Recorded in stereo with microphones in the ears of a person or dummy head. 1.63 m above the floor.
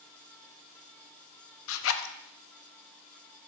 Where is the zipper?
75° left (ahead or behind), 0.7 m.